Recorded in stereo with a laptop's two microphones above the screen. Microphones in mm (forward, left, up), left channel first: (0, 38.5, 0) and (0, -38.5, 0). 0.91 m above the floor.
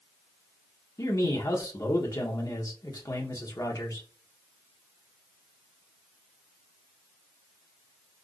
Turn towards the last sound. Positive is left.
turn(degrees=50)  # may be behind; listen again after turning